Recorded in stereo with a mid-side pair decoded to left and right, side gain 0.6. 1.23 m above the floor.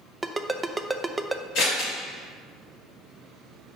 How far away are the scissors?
About 2.5 m.